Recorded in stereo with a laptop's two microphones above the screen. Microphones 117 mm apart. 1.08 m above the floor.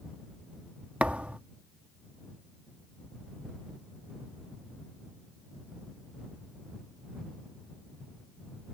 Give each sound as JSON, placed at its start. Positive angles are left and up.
{"t": 1.0, "sound": "a thud", "side_deg": -10}